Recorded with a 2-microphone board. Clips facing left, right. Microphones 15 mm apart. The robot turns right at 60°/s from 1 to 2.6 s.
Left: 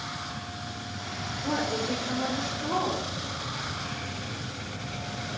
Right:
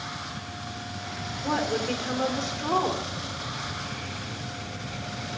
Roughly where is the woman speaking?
Behind right.